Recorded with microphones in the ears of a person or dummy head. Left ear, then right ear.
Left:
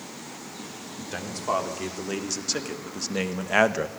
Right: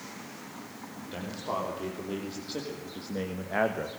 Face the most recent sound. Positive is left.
turn(degrees=80)